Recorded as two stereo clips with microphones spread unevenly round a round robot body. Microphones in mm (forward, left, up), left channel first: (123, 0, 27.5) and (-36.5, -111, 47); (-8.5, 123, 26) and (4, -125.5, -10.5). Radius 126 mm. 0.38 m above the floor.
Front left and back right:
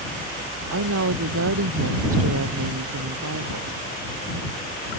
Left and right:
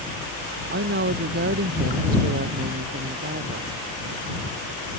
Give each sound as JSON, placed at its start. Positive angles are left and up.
{"t": 0.7, "sound": "a woman speaking", "azimuth_deg": -140}